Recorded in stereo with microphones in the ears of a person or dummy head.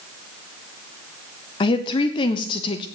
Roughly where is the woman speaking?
Left.